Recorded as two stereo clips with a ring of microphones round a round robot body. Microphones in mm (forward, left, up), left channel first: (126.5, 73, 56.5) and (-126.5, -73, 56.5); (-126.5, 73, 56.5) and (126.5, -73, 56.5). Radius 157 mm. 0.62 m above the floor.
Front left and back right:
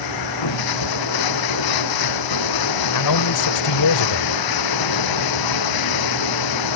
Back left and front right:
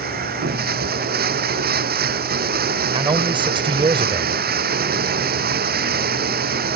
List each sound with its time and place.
0.0 s running water: 30° left
2.9 s a man speaking: 45° left